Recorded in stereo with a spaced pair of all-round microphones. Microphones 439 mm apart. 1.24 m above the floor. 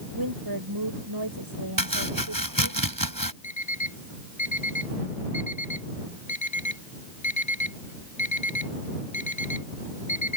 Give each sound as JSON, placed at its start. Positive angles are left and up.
{"t": 0.1, "sound": "a woman speaking", "side_deg": -55}
{"t": 1.8, "sound": "chopping", "side_deg": -45}
{"t": 3.4, "sound": "an alarm clock", "side_deg": 85}